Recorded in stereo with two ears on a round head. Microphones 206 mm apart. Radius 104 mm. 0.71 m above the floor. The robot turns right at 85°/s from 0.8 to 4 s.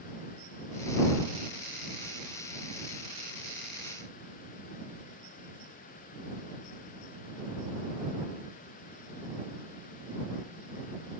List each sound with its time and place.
Only background noise.